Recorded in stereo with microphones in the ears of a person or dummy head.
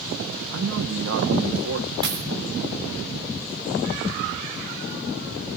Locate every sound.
0.5 s a man speaking: 70° right (ahead or behind), 1.5 m
2.0 s a dropped coin: 25° right (ahead or behind), 3 m